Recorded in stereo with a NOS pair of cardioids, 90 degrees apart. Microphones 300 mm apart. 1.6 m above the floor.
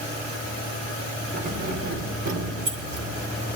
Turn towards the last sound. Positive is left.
turn(degrees=-75)